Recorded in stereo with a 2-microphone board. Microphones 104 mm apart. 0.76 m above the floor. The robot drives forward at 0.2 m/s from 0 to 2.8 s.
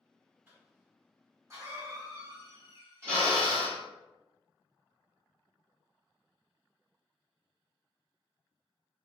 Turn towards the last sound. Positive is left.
turn(degrees=-20)  # may be behind; listen again after turning